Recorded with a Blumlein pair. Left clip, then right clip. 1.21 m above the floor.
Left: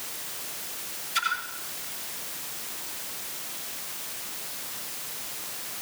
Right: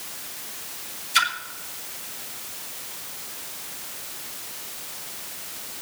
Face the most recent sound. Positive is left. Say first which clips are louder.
# right 6 dB
turn(degrees=-35)